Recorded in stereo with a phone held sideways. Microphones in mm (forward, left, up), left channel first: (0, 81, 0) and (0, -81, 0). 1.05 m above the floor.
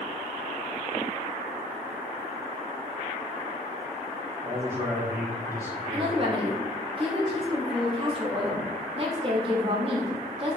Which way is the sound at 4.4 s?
15° right (ahead or behind).